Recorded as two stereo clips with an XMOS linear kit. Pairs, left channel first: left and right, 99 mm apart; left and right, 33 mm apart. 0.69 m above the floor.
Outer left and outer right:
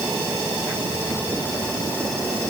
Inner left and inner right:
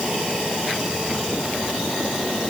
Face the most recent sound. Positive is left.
No sound to turn to.